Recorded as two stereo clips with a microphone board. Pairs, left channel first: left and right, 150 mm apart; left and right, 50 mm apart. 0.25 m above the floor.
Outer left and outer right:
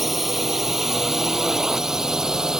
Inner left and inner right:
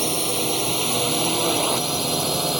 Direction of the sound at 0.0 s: Centre (ahead or behind).